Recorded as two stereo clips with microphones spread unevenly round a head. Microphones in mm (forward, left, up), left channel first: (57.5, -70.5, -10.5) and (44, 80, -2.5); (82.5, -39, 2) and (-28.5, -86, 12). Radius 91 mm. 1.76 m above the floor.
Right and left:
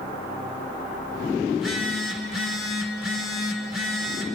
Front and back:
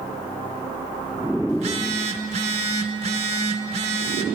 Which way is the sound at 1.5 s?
Straight behind.